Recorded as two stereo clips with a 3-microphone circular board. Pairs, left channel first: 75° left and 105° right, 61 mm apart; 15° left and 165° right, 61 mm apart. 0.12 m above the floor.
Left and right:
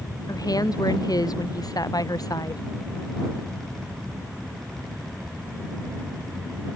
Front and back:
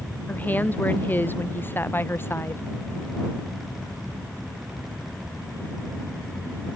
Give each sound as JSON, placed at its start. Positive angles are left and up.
{"t": 0.3, "sound": "a woman speaking", "azimuth_deg": 80}